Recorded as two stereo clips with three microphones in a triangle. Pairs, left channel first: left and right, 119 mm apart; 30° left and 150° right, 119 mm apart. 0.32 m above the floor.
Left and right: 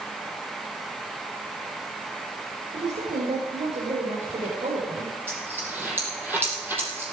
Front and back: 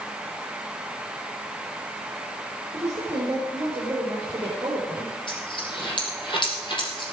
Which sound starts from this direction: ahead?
A dropped coin, at 5.3 s.